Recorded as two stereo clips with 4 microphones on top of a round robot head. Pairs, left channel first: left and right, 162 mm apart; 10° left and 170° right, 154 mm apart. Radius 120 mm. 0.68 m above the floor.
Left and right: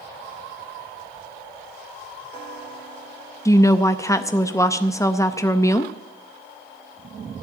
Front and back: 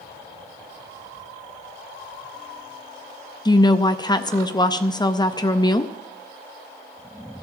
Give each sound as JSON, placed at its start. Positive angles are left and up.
{"t": 3.5, "sound": "a woman speaking", "azimuth_deg": 40, "distance_m": 0.7}